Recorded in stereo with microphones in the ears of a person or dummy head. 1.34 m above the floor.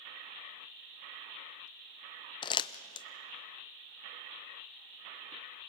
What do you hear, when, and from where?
2.4 s crumpling: 25° left (ahead or behind), 0.5 m